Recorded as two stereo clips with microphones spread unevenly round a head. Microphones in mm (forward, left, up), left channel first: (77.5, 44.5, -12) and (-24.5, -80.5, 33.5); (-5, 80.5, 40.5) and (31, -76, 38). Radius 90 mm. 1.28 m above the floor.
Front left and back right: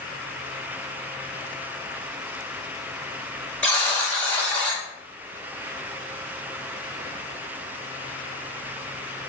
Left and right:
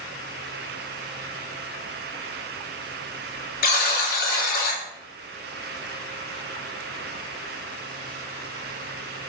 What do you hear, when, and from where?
3.6 s a buzzer: 125° left, 1.0 m